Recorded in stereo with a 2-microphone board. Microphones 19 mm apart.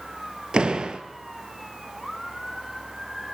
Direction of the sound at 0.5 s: 65° right (ahead or behind).